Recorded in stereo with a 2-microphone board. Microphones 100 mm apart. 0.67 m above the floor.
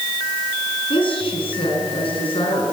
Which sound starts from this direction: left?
A woman speaking, at 0.9 s.